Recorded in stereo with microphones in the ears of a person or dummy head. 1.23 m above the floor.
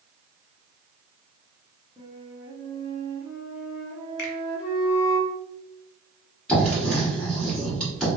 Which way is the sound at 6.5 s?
5° left (ahead or behind).